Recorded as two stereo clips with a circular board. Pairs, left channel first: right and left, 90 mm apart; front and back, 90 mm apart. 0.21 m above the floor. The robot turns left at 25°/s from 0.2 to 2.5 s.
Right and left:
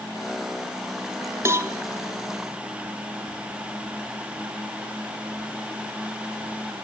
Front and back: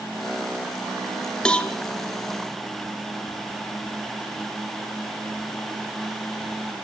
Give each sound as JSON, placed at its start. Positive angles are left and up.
{"t": 1.4, "sound": "a cowbell", "azimuth_deg": 70, "distance_m": 1.3}